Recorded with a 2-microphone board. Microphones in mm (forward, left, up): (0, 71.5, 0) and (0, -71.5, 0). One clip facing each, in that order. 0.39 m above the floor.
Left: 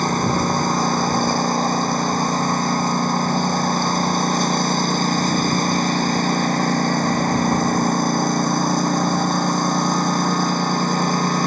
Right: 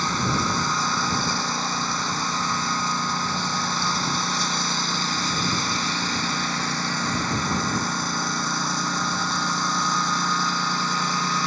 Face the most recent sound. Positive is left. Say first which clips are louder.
# left 6 dB
turn(degrees=45)  # may be behind; listen again after turning